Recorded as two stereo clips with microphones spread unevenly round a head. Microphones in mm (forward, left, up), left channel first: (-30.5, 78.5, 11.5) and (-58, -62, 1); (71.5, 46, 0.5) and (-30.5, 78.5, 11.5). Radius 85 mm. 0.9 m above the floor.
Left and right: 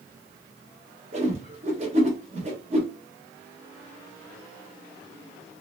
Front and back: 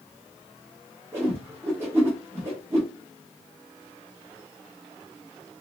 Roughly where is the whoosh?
Behind right.